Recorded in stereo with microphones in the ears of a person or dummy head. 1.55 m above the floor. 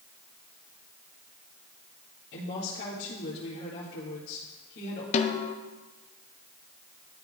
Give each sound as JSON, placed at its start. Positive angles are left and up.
{"t": 2.3, "sound": "a woman speaking", "side_deg": 60, "distance_m": 2.5}
{"t": 5.1, "sound": "a snare drum", "side_deg": 40, "distance_m": 0.6}